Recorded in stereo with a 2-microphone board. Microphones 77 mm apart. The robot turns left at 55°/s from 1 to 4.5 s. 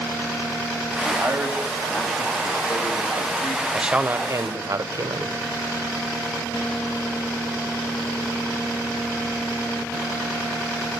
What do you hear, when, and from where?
1.1 s a man speaking: 130° right, 2.5 m; by 3.6 s 85° left, 2.5 m
3.7 s a man speaking: 5° right, 1.0 m; by 5.3 s 50° right, 1.0 m